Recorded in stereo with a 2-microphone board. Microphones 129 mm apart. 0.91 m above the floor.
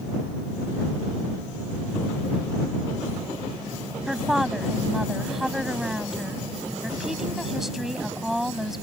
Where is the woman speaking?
Centre (ahead or behind).